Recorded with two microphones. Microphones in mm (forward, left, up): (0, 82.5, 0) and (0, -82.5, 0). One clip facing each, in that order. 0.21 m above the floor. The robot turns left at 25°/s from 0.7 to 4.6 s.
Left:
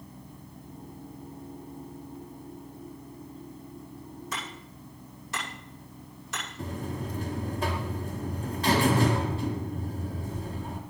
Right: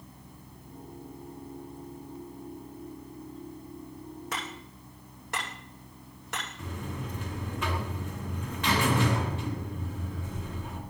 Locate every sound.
4.3 s hammering: 65° right (ahead or behind), 9.5 m; by 6.5 s 60° right (ahead or behind), 9.5 m
6.6 s a buzzer: 35° left (ahead or behind), 2.5 m